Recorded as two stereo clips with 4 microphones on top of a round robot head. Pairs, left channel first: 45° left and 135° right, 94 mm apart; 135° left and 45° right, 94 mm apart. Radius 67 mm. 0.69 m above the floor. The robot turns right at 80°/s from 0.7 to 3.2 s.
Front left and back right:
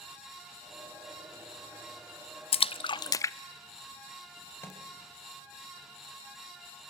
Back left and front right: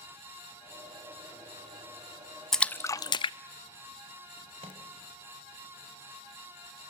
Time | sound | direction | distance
2.5 | a splash | 45° left | 0.6 m
4.6 | a microwave | 20° right | 3.5 m